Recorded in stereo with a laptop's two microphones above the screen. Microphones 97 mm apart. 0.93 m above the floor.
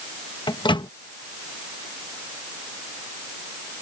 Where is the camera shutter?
No camera shutter in this recording.